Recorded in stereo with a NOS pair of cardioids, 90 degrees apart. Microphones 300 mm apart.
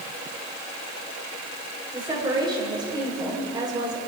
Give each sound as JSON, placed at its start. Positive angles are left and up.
{"t": 1.9, "sound": "a woman speaking", "azimuth_deg": -15, "distance_m": 7.0}